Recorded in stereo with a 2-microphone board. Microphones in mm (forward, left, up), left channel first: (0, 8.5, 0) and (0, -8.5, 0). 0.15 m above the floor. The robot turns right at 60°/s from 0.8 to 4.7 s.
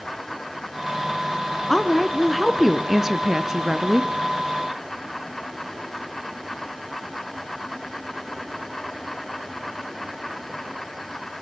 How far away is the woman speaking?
About 1.4 m.